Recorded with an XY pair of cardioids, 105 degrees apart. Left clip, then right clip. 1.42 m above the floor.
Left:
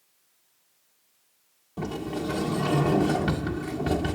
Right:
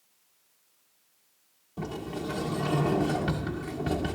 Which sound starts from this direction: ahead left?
A sliding door, at 1.8 s.